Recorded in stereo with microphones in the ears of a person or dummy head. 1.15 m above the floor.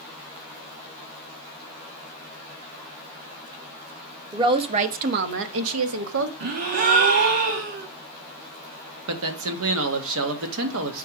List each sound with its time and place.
4.3 s a woman speaking: 20° right (ahead or behind), 1.2 m; by 6.3 s 85° right, 1.5 m
6.4 s a gasp: 45° right (ahead or behind), 0.8 m
9.1 s a man speaking: 70° right (ahead or behind), 1.6 m